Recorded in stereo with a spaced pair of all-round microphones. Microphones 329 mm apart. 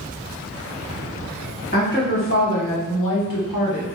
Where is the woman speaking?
30° left (ahead or behind), 1.6 m; by 3.9 s 65° left (ahead or behind), 0.9 m.